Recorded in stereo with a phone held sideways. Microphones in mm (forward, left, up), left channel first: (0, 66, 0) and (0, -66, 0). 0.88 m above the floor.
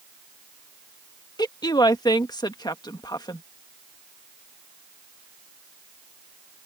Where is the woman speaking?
30° left (ahead or behind).